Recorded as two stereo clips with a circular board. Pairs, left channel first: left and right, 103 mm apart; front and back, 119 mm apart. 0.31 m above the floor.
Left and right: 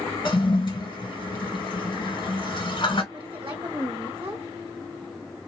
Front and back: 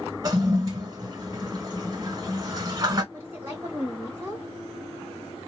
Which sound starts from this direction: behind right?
A woman speaking, at 3.1 s.